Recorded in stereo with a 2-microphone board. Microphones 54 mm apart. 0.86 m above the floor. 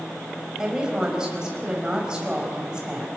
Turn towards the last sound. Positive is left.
turn(degrees=-15)  # may be behind; listen again after turning